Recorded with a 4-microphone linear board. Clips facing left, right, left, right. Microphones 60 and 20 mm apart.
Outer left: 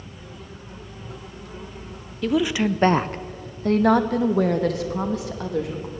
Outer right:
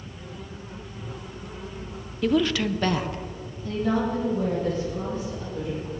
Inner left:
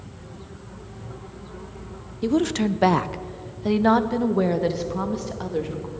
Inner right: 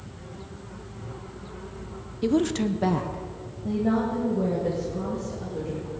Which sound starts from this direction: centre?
A woman speaking, at 2.2 s.